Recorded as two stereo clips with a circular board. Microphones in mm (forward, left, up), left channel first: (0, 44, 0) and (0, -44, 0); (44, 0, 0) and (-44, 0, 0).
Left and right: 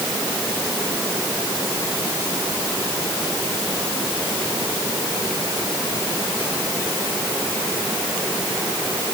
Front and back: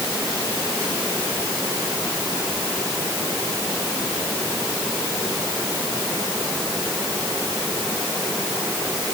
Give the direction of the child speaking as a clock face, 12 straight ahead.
No child speaking in this recording.